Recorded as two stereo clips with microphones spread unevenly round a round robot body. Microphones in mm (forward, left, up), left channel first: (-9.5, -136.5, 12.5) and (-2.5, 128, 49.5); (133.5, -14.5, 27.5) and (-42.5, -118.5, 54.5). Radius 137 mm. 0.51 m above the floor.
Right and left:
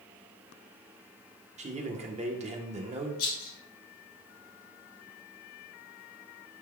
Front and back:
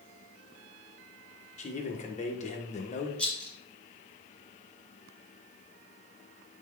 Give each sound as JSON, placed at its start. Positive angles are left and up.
{"t": 1.6, "sound": "a man speaking", "azimuth_deg": 25, "distance_m": 1.6}
{"t": 3.2, "sound": "a rattle", "azimuth_deg": -55, "distance_m": 3.5}